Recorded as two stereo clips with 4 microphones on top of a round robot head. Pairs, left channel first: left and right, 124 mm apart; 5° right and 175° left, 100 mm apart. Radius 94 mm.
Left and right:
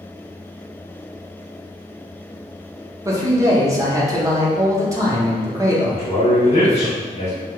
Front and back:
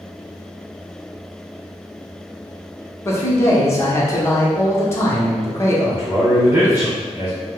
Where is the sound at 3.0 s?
45° right, 0.9 m.